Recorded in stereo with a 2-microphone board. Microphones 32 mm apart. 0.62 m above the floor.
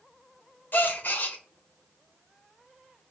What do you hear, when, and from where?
0.7 s a gasp: 65° left (ahead or behind), 0.7 m